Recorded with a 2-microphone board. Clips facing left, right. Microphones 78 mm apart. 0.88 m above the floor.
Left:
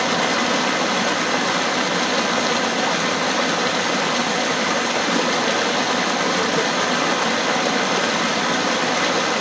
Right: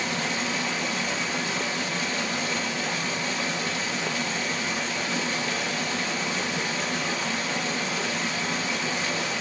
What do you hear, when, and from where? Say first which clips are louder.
0.0 s running water: left 9 dB; 70° left (ahead or behind), 0.8 m